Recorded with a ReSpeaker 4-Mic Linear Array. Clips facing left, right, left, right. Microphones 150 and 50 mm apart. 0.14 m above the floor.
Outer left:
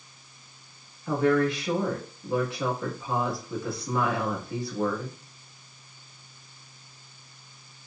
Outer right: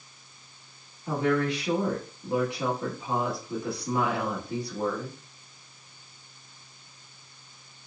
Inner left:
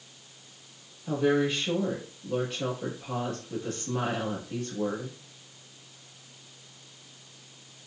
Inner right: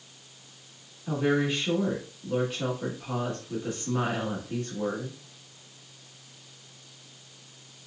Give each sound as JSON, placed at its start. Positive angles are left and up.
{"t": 1.1, "sound": "a woman speaking", "side_deg": -20, "distance_m": 1.2}